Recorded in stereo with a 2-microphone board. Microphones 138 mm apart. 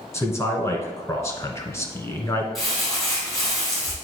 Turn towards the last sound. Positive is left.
turn(degrees=0)  # may be behind; listen again after turning